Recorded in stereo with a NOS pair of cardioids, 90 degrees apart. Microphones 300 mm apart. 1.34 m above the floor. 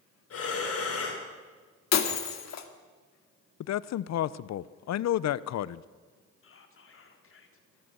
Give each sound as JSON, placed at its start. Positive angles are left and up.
{"t": 0.3, "sound": "breathing", "azimuth_deg": 50, "distance_m": 4.5}
{"t": 1.9, "sound": "breaking glass", "azimuth_deg": 60, "distance_m": 2.0}
{"t": 3.6, "sound": "a man speaking", "azimuth_deg": 60, "distance_m": 0.7}
{"t": 6.4, "sound": "whispering", "azimuth_deg": 45, "distance_m": 3.5}